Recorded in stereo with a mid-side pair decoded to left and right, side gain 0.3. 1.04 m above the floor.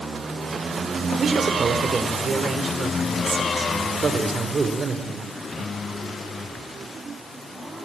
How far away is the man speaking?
About 4 m.